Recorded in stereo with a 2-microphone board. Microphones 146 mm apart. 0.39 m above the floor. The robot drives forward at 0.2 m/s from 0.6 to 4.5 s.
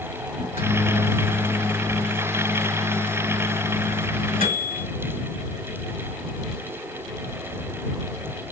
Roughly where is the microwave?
Left.